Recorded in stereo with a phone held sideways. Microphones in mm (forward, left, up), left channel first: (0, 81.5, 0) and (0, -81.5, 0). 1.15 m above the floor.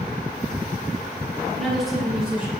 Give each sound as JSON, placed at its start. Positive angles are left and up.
{"t": 1.6, "sound": "a woman speaking", "side_deg": 0, "distance_m": 2.5}